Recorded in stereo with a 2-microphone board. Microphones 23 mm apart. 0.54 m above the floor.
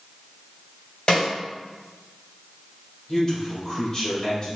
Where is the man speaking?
20° left (ahead or behind), 1.6 m.